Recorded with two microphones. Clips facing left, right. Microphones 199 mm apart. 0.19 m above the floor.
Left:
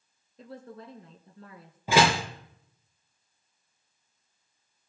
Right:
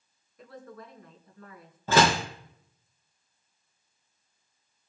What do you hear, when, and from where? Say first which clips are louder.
0.4 s a woman speaking: left 2 dB; 30° left (ahead or behind), 2.0 m
1.9 s a door slam: even; 10° left (ahead or behind), 2 m